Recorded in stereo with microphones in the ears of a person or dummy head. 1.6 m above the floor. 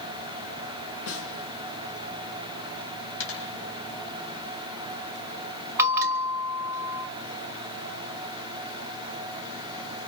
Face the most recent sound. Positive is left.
turn(degrees=-15)  # may be behind; listen again after turning